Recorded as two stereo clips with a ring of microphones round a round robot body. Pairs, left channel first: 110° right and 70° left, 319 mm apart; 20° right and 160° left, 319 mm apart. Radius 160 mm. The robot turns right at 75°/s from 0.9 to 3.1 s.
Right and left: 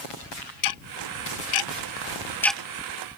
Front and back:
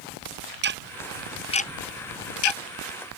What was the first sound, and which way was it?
Ticking, 145° right.